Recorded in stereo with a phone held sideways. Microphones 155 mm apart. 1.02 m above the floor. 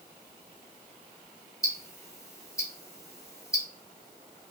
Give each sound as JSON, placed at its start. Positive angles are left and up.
{"t": 1.6, "sound": "ticking", "side_deg": 20, "distance_m": 1.3}